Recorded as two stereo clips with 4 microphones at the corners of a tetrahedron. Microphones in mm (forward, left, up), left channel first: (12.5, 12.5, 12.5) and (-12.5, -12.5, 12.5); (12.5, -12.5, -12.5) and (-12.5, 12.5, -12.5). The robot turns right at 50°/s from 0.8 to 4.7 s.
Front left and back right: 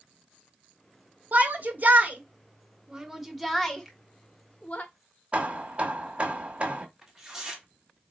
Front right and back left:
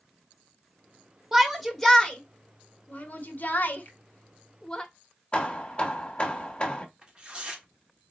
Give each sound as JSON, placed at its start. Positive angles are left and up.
{"t": 1.3, "sound": "a shout", "azimuth_deg": -145, "distance_m": 1.3}
{"t": 3.9, "sound": "a finger snap", "azimuth_deg": -50, "distance_m": 1.5}
{"t": 5.3, "sound": "hammering", "azimuth_deg": -95, "distance_m": 1.1}
{"t": 7.0, "sound": "tearing paper", "azimuth_deg": 155, "distance_m": 1.5}